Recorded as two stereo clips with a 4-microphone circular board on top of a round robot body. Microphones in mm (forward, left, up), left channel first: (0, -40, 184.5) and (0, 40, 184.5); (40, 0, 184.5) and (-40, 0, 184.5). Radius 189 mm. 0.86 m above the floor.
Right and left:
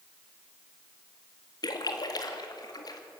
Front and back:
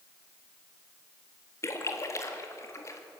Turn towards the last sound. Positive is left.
turn(degrees=-55)